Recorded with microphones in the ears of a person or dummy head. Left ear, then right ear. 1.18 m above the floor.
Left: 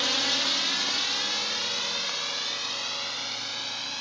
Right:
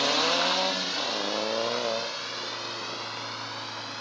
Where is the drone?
5° left (ahead or behind); by 4.0 s 20° left (ahead or behind).